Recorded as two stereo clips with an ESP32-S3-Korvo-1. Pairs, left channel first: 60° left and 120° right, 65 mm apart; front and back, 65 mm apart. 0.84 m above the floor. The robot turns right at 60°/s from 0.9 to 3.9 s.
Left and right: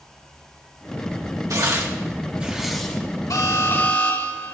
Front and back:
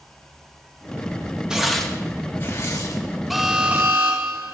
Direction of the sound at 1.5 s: 105° right.